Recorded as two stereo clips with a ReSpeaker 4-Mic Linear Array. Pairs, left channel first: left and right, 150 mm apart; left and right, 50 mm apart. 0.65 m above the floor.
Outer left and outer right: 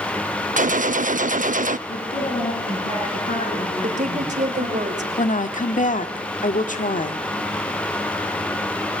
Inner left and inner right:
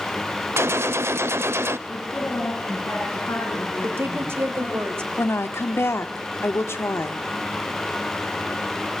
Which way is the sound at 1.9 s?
75° left (ahead or behind).